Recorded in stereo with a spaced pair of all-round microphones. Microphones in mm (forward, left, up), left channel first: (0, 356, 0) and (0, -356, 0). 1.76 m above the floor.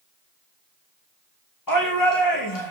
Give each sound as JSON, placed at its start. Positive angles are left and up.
{"t": 1.7, "sound": "a shout", "side_deg": 30, "distance_m": 2.0}